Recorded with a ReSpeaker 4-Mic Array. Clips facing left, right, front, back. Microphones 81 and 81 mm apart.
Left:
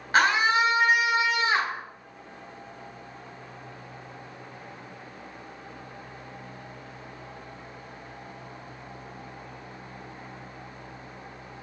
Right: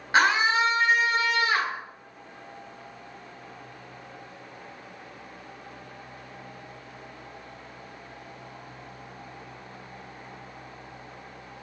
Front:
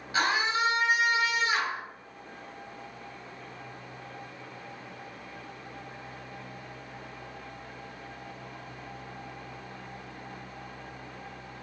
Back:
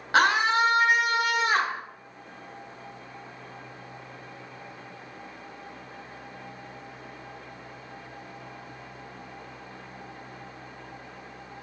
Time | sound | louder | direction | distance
0.1 | a scream | even, back 6 dB | straight behind | 1.6 m